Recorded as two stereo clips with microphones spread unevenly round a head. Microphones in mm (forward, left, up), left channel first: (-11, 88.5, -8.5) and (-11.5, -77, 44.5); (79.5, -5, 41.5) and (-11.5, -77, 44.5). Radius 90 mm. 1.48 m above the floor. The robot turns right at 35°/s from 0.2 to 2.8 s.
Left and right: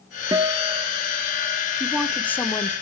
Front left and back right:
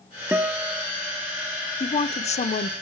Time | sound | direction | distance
0.3 | a guitar | 70° right | 0.8 m
1.8 | a woman speaking | 5° right | 1.1 m